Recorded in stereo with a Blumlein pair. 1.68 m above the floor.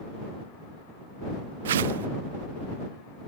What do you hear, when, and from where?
1.6 s a whoosh: 60° right